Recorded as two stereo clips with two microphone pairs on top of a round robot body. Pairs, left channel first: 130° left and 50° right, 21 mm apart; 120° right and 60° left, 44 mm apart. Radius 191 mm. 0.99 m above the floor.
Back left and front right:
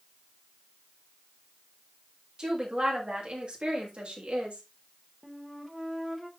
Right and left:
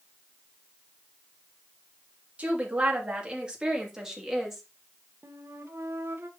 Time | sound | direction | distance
2.4 | a woman speaking | 5° left | 3 m
5.2 | a flute | 45° left | 1.5 m